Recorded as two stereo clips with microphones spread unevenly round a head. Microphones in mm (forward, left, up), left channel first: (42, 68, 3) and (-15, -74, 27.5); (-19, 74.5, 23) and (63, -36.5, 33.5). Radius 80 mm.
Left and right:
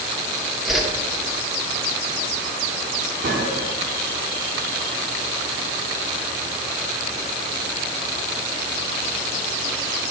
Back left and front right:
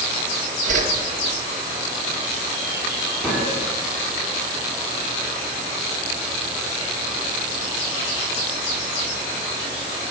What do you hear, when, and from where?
0.7 s a whoosh: 25° right, 1.4 m
3.2 s a gunshot: 150° right, 2 m